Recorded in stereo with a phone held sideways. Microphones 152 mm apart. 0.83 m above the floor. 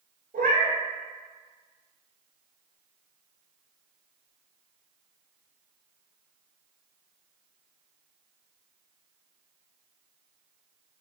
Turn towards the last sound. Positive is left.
turn(degrees=-65)  # may be behind; listen again after turning